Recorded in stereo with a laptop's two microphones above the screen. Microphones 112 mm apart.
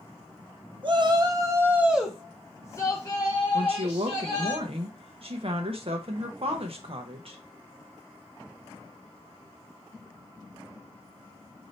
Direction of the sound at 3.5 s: 60° right (ahead or behind).